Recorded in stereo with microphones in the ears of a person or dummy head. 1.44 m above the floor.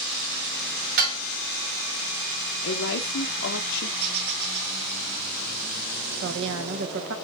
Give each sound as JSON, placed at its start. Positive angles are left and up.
{"t": 1.0, "sound": "dishes clattering", "side_deg": -50, "distance_m": 3.0}
{"t": 2.6, "sound": "a woman speaking", "side_deg": 60, "distance_m": 1.1}
{"t": 4.0, "sound": "a bird", "side_deg": -50, "distance_m": 2.0}
{"t": 6.2, "sound": "a woman speaking", "side_deg": -70, "distance_m": 1.2}